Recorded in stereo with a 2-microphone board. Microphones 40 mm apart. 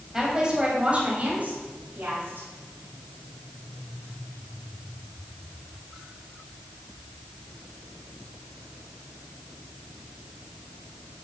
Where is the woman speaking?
10° right (ahead or behind), 3.5 m; by 2.5 s 65° right (ahead or behind), 4 m.